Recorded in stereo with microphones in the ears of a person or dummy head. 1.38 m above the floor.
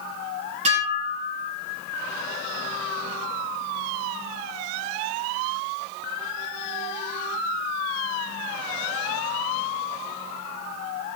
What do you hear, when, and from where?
0.7 s dishes clattering: 40° right (ahead or behind), 8 m